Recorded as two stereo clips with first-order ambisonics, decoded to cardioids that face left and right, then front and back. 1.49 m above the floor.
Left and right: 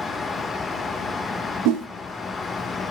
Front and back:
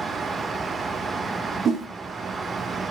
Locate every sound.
1.6 s a whoosh: 115° right, 0.5 m